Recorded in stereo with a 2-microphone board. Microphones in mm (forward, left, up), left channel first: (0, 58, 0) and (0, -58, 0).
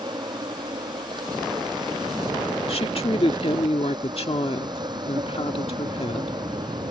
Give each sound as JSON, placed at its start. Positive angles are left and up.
{"t": 0.0, "sound": "an insect", "side_deg": -40}
{"t": 2.7, "sound": "a woman speaking", "side_deg": 55}